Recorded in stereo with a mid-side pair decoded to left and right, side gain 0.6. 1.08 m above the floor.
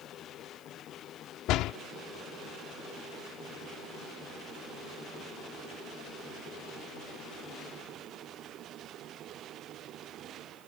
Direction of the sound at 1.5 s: 65° left.